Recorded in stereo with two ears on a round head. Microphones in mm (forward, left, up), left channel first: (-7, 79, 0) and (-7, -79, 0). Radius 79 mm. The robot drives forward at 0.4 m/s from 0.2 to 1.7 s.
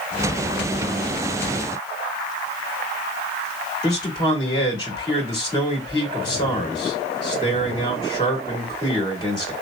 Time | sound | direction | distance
3.8 | a man speaking | 25° left (ahead or behind) | 1.8 m